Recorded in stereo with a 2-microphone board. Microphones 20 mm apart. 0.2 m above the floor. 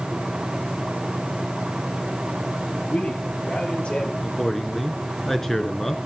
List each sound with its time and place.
2.9 s a man speaking: 70° left (ahead or behind), 5 m
4.2 s a man speaking: 20° left (ahead or behind), 3 m